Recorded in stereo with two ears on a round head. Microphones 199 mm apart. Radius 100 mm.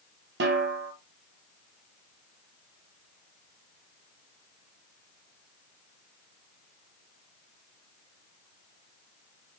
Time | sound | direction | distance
0.4 | a snare drum | 50° right (ahead or behind) | 0.6 m